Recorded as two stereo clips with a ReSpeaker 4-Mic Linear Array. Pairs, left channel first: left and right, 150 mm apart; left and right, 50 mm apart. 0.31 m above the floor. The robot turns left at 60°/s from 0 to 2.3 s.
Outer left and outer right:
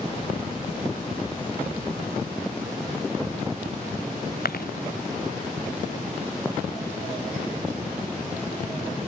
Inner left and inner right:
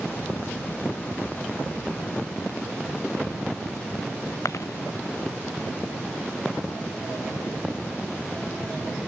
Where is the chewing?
85° left.